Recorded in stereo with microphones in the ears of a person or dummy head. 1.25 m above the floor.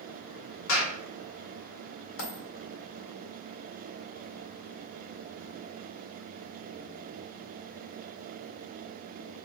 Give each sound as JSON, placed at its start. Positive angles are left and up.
{"t": 0.7, "sound": "a clap", "side_deg": 80, "distance_m": 1.1}
{"t": 2.2, "sound": "a dropped coin", "side_deg": 70, "distance_m": 1.8}